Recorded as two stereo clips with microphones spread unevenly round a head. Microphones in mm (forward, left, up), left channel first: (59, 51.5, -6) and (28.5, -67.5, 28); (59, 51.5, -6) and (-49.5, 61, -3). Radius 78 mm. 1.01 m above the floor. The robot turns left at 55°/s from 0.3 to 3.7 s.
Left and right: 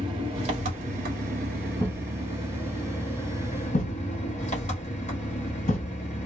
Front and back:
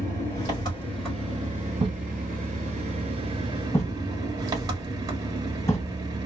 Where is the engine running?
55° right, 1.2 m; by 6.2 s 120° left, 1.2 m.